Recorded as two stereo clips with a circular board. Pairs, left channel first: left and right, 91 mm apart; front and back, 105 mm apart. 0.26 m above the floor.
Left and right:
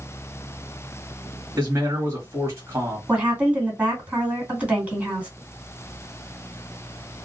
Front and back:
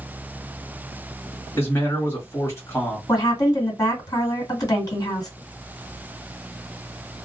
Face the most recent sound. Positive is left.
turn(degrees=-30)